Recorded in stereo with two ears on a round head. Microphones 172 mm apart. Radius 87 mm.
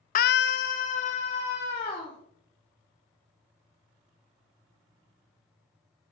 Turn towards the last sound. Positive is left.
turn(degrees=25)  # may be behind; listen again after turning